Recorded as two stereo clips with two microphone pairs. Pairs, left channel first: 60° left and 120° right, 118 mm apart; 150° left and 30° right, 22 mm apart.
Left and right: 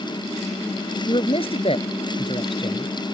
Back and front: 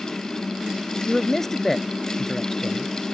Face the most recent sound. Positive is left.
turn(degrees=80)